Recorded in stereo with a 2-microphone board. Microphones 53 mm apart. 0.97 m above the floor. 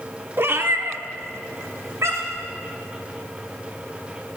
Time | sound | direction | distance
0.4 | a cat meowing | 45° right (ahead or behind) | 0.7 m